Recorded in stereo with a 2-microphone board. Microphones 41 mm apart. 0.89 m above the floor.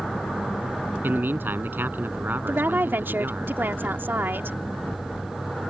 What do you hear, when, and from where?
1.0 s a man speaking: 55° right (ahead or behind)
2.5 s a woman speaking: 60° right (ahead or behind)